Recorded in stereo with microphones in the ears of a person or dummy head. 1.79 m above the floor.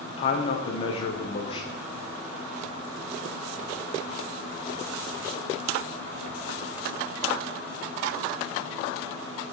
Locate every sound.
0.2 s a man speaking: 35° left (ahead or behind), 0.6 m